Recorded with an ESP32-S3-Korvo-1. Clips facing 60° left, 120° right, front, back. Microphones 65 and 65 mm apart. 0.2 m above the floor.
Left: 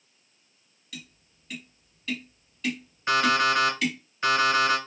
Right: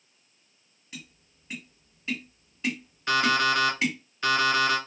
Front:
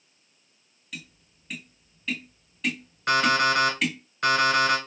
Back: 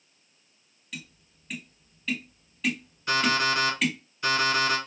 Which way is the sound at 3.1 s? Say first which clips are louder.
Left 1 dB, front 3 dB; 10° right.